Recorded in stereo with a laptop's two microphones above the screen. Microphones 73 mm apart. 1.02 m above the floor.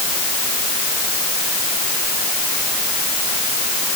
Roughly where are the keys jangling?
I don't hear keys jangling.